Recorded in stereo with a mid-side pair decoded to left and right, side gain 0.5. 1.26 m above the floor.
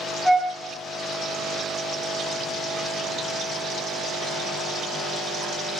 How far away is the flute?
About 0.8 m.